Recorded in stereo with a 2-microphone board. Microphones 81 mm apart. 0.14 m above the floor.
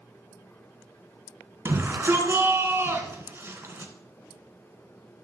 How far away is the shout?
About 1.5 m.